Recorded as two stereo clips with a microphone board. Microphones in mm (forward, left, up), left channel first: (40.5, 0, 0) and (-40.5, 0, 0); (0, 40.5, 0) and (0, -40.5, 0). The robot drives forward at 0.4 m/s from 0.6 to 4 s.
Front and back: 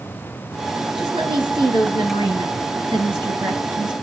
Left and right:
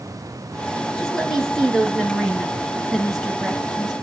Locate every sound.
1.0 s a woman speaking: 175° left, 4 m